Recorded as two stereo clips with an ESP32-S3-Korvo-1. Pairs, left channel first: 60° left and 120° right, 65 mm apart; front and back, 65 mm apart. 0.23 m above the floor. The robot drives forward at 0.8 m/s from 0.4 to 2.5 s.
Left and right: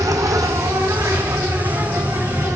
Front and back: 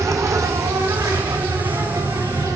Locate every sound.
0.0 s an insect: 145° right, 0.8 m; by 2.6 s 170° right, 2.5 m